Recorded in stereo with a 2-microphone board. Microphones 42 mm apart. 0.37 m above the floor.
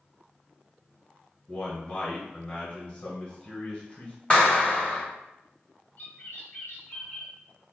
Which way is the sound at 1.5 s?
30° left (ahead or behind).